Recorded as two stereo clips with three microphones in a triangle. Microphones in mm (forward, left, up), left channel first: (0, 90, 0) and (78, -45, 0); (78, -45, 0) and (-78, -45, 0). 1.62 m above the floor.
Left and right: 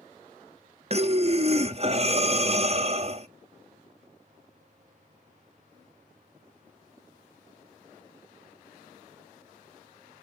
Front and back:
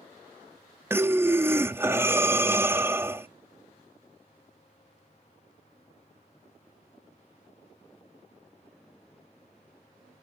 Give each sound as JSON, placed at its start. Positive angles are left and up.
{"t": 0.9, "sound": "breathing", "azimuth_deg": -105, "distance_m": 0.5}